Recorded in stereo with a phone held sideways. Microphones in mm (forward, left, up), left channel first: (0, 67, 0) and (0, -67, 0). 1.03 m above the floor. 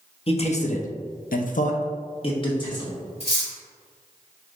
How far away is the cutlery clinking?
About 1.7 m.